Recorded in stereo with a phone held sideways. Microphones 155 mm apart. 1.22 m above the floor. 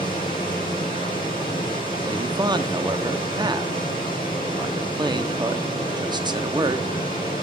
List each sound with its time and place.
0.0 s a machine running: 35° left (ahead or behind), 6.5 m
2.0 s a man speaking: 25° right (ahead or behind), 0.6 m